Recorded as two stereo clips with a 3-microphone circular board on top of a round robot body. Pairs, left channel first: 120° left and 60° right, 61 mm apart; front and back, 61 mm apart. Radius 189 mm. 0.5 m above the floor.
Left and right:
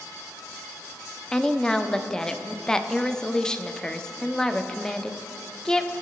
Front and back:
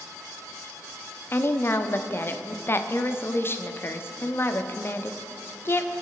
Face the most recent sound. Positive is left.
turn(degrees=40)